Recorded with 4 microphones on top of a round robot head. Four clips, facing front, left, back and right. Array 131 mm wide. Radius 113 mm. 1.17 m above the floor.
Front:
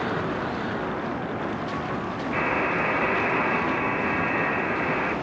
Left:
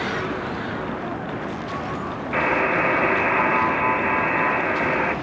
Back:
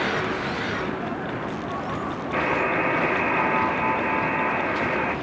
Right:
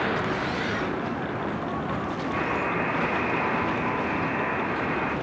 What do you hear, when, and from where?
2.3 s a buzzer: 100° left, 3 m